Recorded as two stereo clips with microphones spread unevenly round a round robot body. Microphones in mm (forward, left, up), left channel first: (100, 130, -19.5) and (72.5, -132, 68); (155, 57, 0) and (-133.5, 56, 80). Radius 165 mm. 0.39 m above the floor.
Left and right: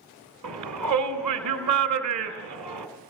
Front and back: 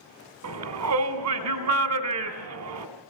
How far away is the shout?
About 2.5 m.